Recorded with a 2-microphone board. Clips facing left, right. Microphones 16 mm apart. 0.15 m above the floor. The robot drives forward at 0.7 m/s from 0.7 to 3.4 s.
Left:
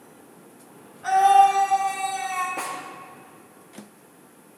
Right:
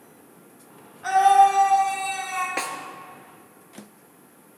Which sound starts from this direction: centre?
A scream, at 1.0 s.